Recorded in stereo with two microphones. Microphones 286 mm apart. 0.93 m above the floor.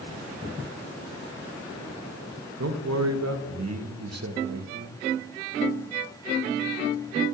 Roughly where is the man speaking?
Right.